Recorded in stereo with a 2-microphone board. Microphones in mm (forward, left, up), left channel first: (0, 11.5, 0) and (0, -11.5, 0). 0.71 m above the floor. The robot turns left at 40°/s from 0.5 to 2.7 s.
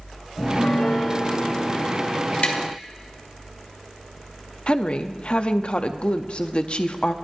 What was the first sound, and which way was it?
A piano, 135° left.